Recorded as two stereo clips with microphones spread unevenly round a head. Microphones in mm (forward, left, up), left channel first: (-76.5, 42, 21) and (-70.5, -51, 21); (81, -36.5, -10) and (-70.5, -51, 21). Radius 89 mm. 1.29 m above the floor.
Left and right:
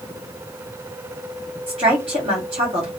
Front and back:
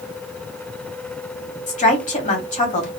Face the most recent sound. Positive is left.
turn(degrees=-35)